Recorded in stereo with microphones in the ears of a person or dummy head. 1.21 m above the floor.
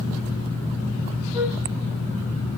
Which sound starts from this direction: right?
A flute, at 1.3 s.